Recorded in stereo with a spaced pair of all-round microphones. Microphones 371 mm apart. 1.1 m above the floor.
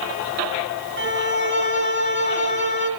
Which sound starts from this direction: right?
A violin, at 1.0 s.